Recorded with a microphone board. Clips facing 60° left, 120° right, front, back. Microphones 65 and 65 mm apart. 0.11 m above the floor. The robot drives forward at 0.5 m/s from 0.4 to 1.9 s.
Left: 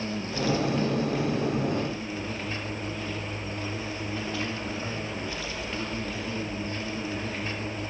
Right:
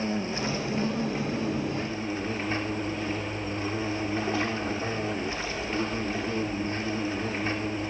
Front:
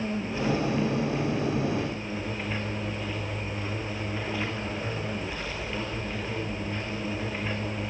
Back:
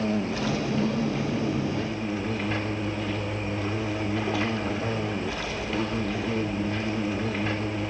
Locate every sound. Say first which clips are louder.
0.0 s an insect: even, back 3 dB; 175° left, 2.5 m